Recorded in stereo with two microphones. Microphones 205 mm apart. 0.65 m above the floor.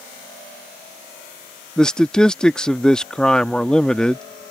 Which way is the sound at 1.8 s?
5° left (ahead or behind).